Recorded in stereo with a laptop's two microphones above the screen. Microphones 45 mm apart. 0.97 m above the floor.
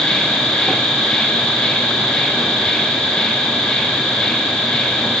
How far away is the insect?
About 2 m.